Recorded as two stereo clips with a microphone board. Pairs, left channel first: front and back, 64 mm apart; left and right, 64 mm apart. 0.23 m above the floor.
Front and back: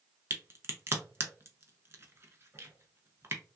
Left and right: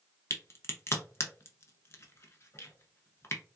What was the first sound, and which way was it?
A crack, 135° left.